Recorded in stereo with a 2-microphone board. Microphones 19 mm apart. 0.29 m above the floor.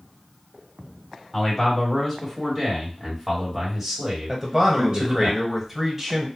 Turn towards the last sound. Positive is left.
turn(degrees=-15)  # may be behind; listen again after turning